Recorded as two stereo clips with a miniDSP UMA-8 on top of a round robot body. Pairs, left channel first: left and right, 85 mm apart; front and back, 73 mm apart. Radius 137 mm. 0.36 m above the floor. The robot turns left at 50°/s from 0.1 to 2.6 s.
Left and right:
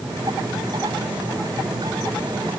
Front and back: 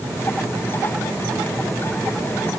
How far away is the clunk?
No clunk in this recording.